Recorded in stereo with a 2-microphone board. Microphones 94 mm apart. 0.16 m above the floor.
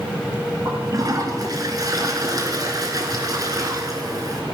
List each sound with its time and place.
0.7 s a toilet flushing: 40° right (ahead or behind), 1.4 m